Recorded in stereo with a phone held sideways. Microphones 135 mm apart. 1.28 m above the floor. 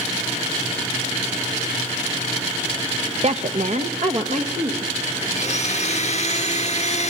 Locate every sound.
3.2 s a woman speaking: 50° right (ahead or behind), 0.7 m; by 4.9 s 65° right (ahead or behind), 2 m
5.3 s a blender: 55° left (ahead or behind), 1.2 m